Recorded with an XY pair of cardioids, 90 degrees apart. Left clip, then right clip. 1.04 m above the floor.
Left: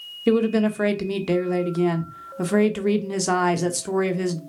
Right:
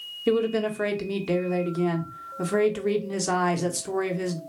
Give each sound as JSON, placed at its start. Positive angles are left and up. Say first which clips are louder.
{"t": 0.3, "sound": "a woman speaking", "louder": "left 3 dB", "azimuth_deg": 35, "distance_m": 0.8}